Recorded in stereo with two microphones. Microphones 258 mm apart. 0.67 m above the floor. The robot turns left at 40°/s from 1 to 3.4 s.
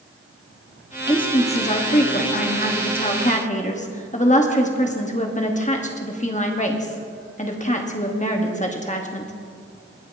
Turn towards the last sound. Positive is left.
turn(degrees=55)